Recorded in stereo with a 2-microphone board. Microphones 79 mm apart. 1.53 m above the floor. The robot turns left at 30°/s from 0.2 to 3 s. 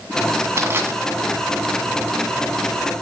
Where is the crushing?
35° right (ahead or behind), 1.8 m; by 0.9 s 30° right (ahead or behind), 1.8 m.